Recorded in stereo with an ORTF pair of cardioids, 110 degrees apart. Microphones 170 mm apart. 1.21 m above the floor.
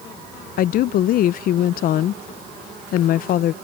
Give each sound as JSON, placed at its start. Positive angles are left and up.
{"t": 0.6, "sound": "a woman speaking", "azimuth_deg": 60}